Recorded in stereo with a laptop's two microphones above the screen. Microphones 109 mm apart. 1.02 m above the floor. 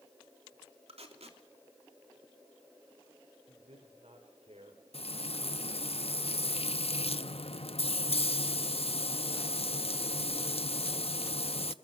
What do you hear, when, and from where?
0.9 s tape being pulled: 70° right (ahead or behind), 3 m
3.5 s a man speaking: 70° right (ahead or behind), 3.5 m
4.9 s frying: 65° left (ahead or behind), 0.6 m